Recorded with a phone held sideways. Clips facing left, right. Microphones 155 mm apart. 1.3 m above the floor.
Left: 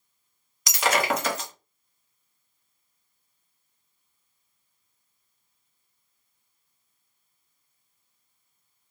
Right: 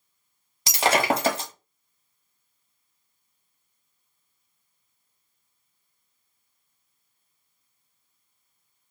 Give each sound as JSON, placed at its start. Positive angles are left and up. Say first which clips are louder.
{"t": 0.7, "sound": "breaking glass", "louder": "right 2 dB", "side_deg": -30, "distance_m": 0.9}